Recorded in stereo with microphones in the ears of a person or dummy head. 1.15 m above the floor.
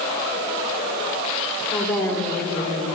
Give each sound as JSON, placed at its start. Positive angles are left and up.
{"t": 1.7, "sound": "a woman speaking", "side_deg": 15, "distance_m": 4.0}